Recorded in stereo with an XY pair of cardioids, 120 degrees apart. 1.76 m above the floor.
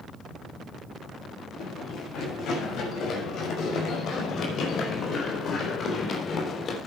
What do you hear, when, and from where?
1.6 s running footsteps: 65° left, 7 m; by 6.8 s 45° left, 3.5 m